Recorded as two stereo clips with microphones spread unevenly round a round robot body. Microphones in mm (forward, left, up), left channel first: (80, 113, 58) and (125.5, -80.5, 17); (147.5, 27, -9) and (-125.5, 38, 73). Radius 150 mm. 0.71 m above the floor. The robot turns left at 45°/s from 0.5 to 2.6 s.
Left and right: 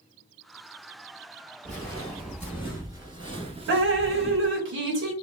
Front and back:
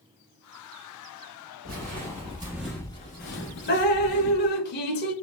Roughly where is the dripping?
Ahead right.